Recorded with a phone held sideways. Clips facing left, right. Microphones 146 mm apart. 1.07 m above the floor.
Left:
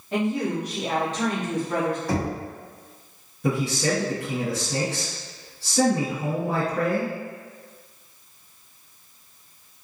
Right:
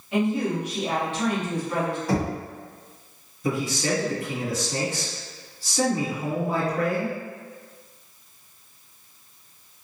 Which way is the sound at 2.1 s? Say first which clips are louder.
Right 1 dB; centre (ahead or behind).